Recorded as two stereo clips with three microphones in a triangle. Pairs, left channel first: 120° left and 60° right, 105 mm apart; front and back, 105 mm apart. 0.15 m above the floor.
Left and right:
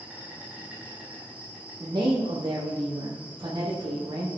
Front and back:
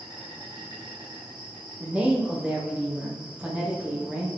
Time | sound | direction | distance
0.0 | an insect | 140° right | 6 m
1.8 | a woman speaking | 105° right | 6 m